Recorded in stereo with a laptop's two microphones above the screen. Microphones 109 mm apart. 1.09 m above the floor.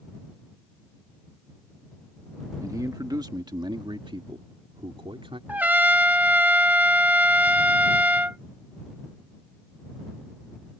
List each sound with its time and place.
2.6 s a man speaking: 30° right (ahead or behind); by 5.4 s 50° right (ahead or behind)
5.5 s a trumpet: 15° right (ahead or behind)